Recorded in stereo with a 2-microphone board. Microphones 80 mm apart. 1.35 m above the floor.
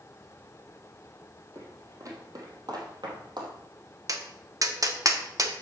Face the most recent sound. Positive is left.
turn(degrees=-45)  # may be behind; listen again after turning